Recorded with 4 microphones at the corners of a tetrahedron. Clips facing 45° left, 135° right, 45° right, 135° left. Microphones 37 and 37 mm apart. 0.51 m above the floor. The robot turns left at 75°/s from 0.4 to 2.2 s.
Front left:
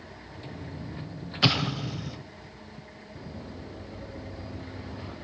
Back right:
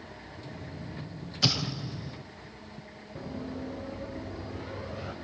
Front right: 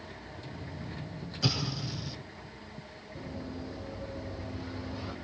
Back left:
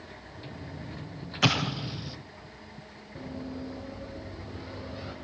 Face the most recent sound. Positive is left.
turn(degrees=-155)